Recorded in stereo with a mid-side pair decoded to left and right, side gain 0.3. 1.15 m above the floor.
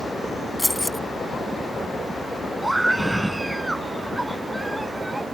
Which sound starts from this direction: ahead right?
A scream, at 2.6 s.